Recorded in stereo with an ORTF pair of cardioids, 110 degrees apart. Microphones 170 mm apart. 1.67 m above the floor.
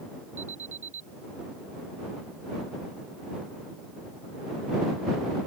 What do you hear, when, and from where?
0.4 s an alarm: 40° right